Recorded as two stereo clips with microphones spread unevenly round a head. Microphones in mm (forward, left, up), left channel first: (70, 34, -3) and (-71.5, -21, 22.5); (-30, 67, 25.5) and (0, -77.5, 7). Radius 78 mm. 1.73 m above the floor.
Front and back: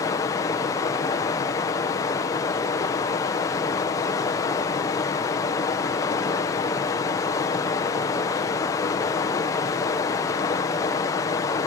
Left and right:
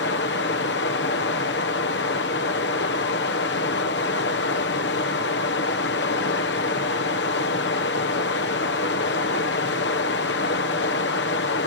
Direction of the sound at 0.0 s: 95° left.